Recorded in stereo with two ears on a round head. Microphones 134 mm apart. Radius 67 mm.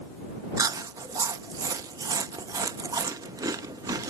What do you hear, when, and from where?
0.6 s chewing: 25° right (ahead or behind)